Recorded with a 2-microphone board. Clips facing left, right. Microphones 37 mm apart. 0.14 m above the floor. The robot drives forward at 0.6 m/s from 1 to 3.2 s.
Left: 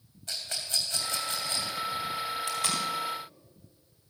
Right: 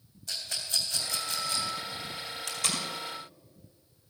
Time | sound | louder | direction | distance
0.3 | a rattle | even | 35° left (ahead or behind) | 3 m
2.5 | tape being pulled | even | 20° left (ahead or behind) | 3.5 m